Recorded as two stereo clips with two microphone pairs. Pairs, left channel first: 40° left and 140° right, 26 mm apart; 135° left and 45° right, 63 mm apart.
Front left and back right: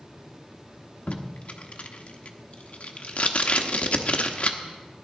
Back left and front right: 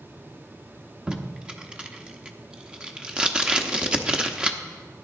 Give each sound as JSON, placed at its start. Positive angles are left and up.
{"t": 1.1, "sound": "tape being pulled", "azimuth_deg": 25, "distance_m": 1.0}